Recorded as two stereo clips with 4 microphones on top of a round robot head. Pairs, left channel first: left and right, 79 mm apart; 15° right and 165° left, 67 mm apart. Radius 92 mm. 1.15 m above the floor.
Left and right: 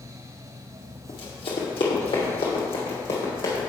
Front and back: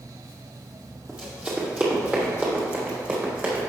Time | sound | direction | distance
1.1 | running footsteps | 95° left | 2.0 m